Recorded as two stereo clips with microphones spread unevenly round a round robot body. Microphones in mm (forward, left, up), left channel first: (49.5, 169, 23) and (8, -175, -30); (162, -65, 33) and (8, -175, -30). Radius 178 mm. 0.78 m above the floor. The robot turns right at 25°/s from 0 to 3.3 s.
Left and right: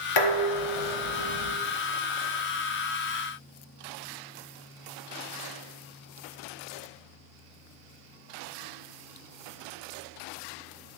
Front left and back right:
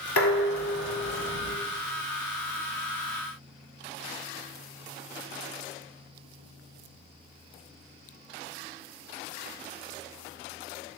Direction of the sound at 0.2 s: 70° left.